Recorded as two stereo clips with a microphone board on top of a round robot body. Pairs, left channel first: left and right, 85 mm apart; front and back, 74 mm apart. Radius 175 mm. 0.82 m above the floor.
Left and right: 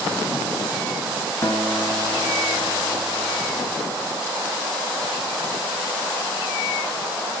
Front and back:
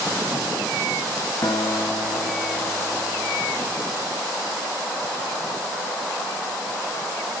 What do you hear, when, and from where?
1.4 s a guitar: 45° left, 1.3 m